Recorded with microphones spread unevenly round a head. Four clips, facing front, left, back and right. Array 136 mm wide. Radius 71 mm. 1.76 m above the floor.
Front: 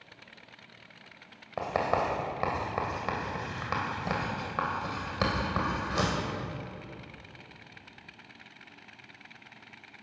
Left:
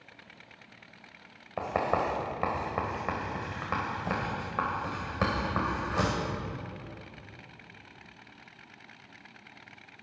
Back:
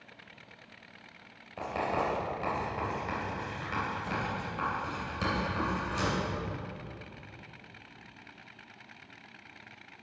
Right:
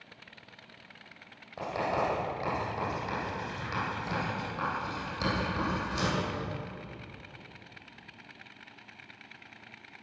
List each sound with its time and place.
1.6 s writing: 40° left, 3 m